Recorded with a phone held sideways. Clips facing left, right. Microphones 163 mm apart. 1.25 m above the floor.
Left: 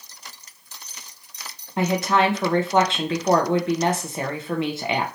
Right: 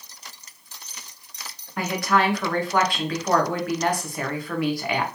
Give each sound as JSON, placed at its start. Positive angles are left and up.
{"t": 1.8, "sound": "a woman speaking", "side_deg": 25, "distance_m": 0.7}